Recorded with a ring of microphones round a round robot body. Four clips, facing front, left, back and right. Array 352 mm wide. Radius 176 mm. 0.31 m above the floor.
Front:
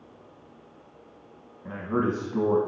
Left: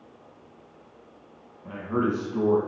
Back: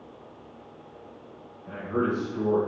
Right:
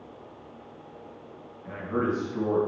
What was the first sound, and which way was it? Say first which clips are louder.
A man speaking: left 2 dB, even; 15° left.